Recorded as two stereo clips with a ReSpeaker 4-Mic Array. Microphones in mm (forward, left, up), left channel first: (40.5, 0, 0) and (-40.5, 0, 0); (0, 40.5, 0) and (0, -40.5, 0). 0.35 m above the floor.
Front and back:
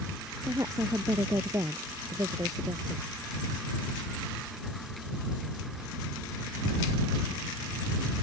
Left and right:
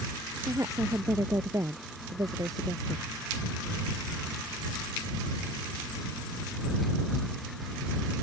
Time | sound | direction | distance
0.4 | a woman speaking | 135° right | ?